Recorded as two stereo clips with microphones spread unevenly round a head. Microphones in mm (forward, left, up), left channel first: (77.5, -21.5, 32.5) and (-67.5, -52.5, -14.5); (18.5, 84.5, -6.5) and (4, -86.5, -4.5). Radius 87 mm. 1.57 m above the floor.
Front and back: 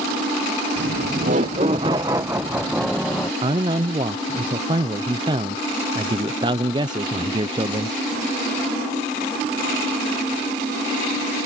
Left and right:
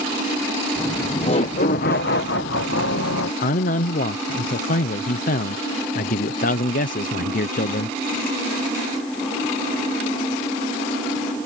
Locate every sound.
0.8 s laughter: 165° left; by 3.3 s 95° left
3.4 s a man speaking: 130° left